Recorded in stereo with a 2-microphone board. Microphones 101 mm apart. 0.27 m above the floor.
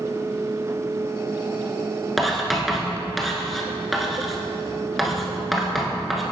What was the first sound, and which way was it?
Writing, centre (ahead or behind).